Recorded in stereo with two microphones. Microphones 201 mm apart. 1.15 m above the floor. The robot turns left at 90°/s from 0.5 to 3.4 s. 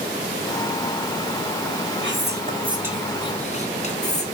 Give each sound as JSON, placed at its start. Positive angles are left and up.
{"t": 2.0, "sound": "whispering", "azimuth_deg": -95, "distance_m": 0.9}